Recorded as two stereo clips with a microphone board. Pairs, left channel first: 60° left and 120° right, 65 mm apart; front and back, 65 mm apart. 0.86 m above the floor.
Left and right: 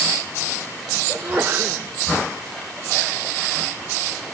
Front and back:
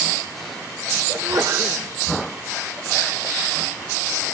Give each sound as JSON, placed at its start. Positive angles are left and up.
{"t": 1.1, "sound": "a sneeze", "azimuth_deg": 170, "distance_m": 2.5}